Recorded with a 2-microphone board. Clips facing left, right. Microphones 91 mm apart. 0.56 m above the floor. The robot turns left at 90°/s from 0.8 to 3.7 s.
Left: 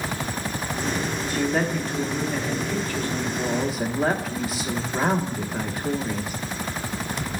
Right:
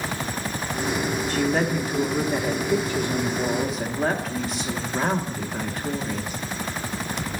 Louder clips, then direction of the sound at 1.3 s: Even; 10° left (ahead or behind).